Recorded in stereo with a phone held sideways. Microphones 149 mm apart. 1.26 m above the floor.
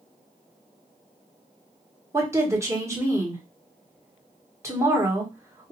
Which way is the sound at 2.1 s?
20° right (ahead or behind).